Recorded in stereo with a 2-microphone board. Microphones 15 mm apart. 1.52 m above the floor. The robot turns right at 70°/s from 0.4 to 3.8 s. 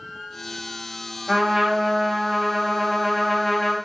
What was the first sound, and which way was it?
A trumpet, 150° right.